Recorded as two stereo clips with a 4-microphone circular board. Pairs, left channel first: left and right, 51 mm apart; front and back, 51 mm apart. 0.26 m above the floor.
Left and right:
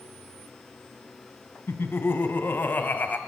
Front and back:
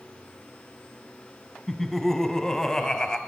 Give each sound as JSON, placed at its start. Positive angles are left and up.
{"t": 1.7, "sound": "laughter", "azimuth_deg": 80, "distance_m": 2.0}